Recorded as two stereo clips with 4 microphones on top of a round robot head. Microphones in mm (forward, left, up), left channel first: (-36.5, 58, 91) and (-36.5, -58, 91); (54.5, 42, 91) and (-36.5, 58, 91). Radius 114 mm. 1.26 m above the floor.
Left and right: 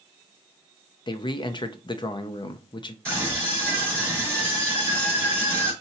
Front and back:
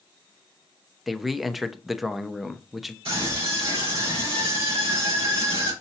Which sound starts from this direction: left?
A man speaking, at 1.1 s.